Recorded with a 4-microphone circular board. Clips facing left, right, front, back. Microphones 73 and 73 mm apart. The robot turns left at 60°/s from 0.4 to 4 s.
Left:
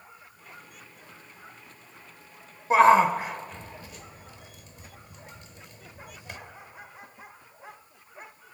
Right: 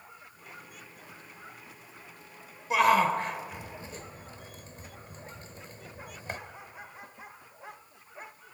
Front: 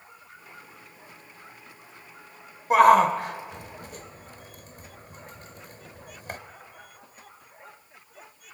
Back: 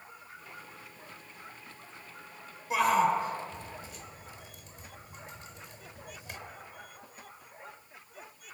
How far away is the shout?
About 2 m.